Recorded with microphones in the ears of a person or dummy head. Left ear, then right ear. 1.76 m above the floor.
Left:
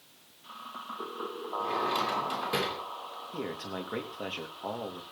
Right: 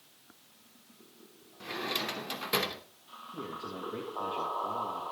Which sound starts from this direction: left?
A man speaking, at 3.3 s.